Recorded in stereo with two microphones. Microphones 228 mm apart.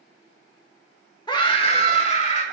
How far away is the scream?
About 0.9 m.